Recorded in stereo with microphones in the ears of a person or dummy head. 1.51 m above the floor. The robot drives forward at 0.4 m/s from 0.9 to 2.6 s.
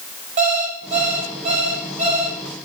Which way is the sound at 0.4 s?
40° right (ahead or behind).